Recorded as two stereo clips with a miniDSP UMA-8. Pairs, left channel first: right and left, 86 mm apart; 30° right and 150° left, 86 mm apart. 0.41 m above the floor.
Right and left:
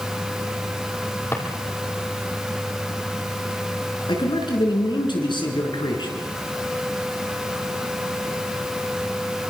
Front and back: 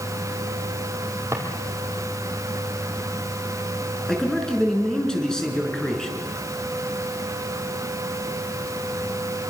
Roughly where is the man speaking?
Right.